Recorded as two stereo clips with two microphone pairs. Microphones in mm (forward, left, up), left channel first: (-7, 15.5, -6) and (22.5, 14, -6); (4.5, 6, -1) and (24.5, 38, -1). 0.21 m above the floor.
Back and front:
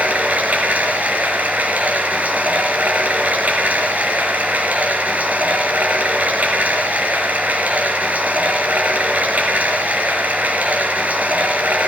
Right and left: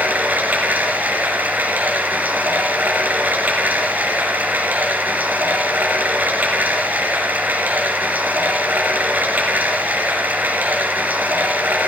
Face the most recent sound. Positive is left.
turn(degrees=25)